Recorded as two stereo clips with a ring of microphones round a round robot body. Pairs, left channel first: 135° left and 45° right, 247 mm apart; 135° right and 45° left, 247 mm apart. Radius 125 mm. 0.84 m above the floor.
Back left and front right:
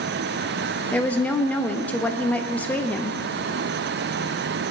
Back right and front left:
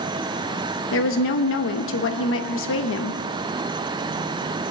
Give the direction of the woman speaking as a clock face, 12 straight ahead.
5 o'clock.